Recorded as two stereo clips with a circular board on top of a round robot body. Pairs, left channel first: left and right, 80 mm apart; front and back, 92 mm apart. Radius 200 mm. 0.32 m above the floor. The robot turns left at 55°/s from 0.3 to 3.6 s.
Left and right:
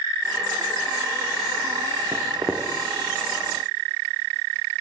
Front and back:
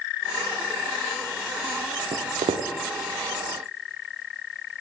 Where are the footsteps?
150° right, 1.2 m; by 2.7 s straight behind, 1.2 m.